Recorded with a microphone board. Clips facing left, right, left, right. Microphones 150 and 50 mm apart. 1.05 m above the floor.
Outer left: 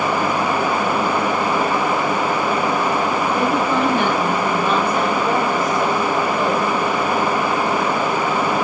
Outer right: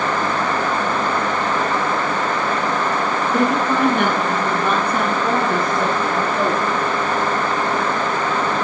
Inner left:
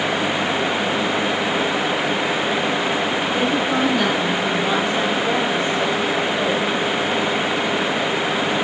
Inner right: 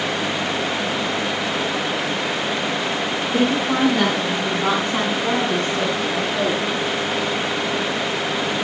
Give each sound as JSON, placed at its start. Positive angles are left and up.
{"t": 3.3, "sound": "a woman speaking", "side_deg": -65, "distance_m": 6.5}